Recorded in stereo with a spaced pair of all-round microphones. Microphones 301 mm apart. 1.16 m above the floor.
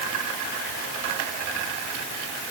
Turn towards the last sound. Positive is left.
No sound to turn to.